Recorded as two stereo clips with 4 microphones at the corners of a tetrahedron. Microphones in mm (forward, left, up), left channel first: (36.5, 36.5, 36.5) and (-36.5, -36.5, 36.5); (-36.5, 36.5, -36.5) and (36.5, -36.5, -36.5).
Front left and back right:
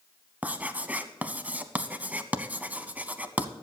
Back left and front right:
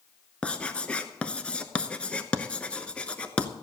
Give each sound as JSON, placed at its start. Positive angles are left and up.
{"t": 0.4, "sound": "writing", "azimuth_deg": -175, "distance_m": 0.8}